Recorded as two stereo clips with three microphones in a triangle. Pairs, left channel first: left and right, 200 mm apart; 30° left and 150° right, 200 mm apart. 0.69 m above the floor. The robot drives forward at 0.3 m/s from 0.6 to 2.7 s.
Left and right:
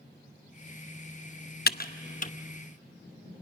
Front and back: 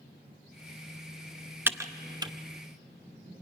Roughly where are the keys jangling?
No keys jangling in this recording.